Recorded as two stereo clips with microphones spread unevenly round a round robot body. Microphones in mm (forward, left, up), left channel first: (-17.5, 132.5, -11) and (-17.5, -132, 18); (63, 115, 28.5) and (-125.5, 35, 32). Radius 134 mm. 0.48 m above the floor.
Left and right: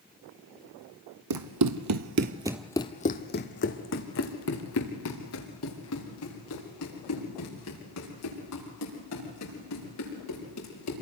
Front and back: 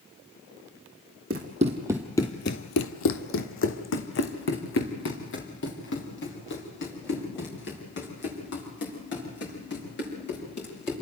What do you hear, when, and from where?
1.3 s running footsteps: 100° right, 1.6 m; by 10.9 s 55° left, 11.5 m